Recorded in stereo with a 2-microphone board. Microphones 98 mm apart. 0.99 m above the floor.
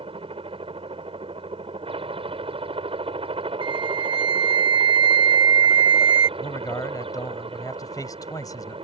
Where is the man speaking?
40° left (ahead or behind).